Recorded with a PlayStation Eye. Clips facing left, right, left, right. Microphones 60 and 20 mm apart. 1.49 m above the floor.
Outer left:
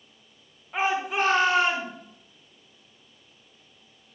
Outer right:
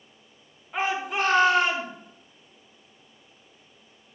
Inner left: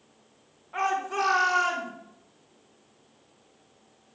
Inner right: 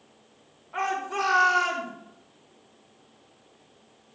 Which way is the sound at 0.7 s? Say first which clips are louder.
Outer left 1 dB, inner left 1 dB; centre (ahead or behind).